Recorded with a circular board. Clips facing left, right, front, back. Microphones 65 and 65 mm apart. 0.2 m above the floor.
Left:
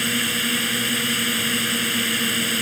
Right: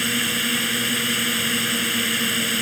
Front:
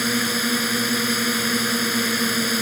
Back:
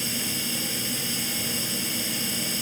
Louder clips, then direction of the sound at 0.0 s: Even, front 10 dB; 5° right.